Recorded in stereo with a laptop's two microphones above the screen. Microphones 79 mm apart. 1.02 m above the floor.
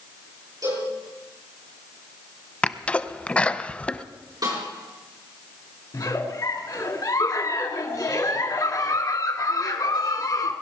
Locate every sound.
0.6 s a cowbell: 50° right (ahead or behind), 10 m
2.6 s a sneeze: 15° left (ahead or behind), 0.7 m
4.4 s a snare drum: 55° right (ahead or behind), 8 m
5.9 s a giggle: 55° left (ahead or behind), 1.6 m